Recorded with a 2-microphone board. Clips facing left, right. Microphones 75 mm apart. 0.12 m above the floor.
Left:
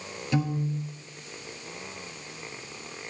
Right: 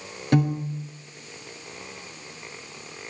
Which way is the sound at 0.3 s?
55° right (ahead or behind).